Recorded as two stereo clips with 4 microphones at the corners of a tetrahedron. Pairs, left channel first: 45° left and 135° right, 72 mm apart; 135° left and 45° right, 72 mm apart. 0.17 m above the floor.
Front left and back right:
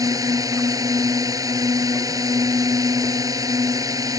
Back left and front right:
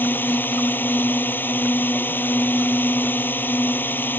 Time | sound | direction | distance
0.0 | a drone | 165° right | ?